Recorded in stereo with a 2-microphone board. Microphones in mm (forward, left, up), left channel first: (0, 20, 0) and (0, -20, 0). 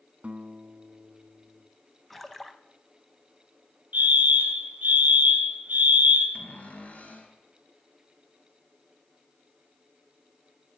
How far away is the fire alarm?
About 2.5 m.